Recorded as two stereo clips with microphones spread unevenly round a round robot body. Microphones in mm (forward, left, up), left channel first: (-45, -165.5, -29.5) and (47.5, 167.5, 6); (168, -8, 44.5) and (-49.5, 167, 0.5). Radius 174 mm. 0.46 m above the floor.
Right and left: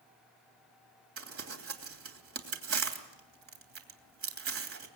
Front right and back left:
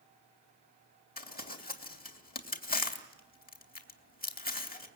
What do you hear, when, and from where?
1.2 s crumpling: 20° left, 3 m